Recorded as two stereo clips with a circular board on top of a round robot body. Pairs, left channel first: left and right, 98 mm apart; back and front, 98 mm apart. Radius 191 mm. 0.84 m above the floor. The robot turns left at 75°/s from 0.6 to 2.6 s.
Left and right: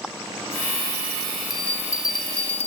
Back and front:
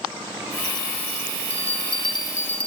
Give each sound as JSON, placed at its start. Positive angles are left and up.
{"t": 1.5, "sound": "a bell", "azimuth_deg": -175, "distance_m": 1.7}